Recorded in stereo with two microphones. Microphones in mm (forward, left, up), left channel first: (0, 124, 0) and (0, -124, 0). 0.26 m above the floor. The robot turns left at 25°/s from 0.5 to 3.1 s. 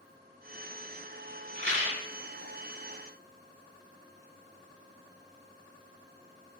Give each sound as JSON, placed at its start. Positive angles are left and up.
{"t": 1.6, "sound": "a rattle", "side_deg": -45, "distance_m": 1.3}